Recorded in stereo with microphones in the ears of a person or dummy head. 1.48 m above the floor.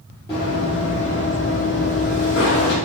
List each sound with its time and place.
0.3 s running footsteps: 15° left (ahead or behind), 1.5 m; by 2.8 s 45° left (ahead or behind), 2 m